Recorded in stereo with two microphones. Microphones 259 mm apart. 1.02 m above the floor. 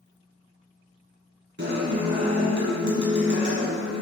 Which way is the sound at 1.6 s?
45° right (ahead or behind).